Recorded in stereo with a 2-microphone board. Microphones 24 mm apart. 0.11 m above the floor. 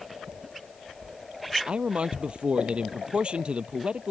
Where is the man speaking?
45° right (ahead or behind).